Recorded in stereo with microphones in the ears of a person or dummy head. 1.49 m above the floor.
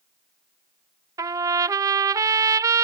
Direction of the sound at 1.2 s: 20° right (ahead or behind).